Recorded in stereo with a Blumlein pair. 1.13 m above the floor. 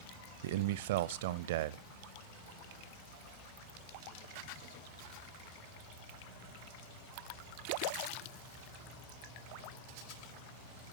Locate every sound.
0.4 s a man speaking: 55° right, 0.7 m